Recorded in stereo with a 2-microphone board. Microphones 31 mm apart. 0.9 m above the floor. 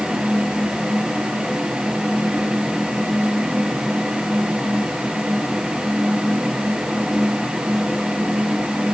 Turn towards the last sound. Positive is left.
No sound to turn to.